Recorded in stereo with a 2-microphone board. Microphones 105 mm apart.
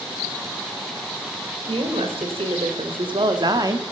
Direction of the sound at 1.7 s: 75° right (ahead or behind).